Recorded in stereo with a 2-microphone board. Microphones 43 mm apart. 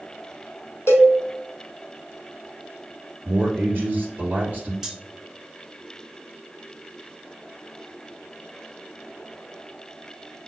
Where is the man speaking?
45° right (ahead or behind), 2.5 m.